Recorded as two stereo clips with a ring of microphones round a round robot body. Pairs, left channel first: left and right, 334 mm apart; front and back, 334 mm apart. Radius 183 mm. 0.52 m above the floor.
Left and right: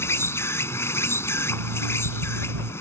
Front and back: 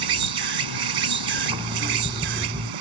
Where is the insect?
175° left.